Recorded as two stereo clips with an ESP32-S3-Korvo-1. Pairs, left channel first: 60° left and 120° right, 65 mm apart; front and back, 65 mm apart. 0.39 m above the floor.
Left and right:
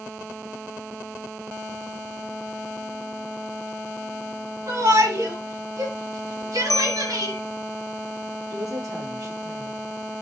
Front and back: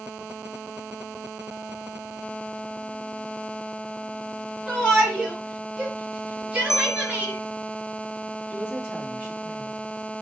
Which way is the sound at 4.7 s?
95° right.